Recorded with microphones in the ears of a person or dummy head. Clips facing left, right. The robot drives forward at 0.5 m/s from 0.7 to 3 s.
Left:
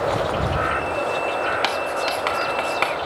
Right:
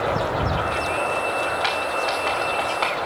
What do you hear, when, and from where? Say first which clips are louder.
1.6 s writing: left 1 dB; 70° left (ahead or behind), 1.0 m; by 2.9 s 50° left (ahead or behind), 1.2 m